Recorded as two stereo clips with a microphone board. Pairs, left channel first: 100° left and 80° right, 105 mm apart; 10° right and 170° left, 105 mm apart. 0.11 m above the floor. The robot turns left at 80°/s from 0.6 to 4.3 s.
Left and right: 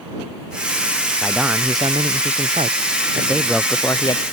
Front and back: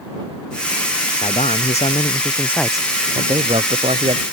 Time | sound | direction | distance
1.2 | a man speaking | 20° left | ?